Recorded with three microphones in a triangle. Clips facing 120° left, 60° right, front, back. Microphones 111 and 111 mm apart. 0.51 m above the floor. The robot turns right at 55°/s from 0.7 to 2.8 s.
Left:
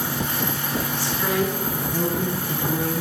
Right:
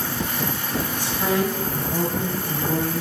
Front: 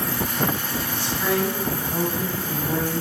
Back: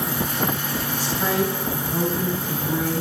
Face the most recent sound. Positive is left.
turn(degrees=-35)